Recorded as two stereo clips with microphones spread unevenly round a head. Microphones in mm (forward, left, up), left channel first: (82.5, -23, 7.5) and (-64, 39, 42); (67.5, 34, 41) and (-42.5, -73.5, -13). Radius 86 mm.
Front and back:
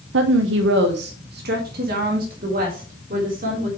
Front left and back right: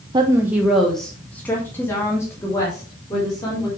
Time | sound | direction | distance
0.1 | a woman speaking | 170° left | 0.9 m